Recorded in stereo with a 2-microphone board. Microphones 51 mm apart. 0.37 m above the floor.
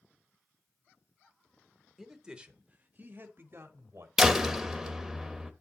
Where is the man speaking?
5° right (ahead or behind), 0.9 m; by 4.1 s 55° right (ahead or behind), 1.6 m.